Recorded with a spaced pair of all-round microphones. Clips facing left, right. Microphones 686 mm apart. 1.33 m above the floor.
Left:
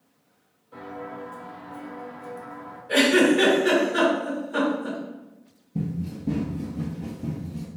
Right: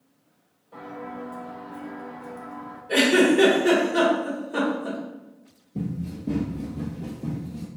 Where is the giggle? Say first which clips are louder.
Even; 20° left (ahead or behind), 1.5 m.